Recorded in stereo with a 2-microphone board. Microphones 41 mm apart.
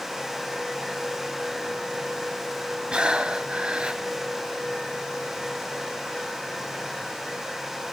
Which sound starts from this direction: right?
Breathing, at 2.9 s.